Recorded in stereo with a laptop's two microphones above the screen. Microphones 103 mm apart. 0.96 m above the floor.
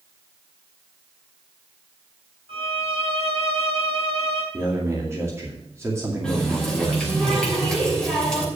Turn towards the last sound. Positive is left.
turn(degrees=5)  # may be behind; listen again after turning